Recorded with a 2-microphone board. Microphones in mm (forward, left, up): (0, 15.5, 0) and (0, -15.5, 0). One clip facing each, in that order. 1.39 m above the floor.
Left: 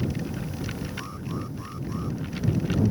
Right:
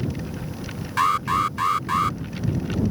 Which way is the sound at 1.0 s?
85° right.